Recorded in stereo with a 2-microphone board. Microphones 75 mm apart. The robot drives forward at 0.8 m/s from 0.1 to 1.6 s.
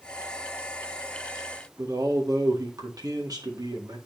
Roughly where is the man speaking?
Right.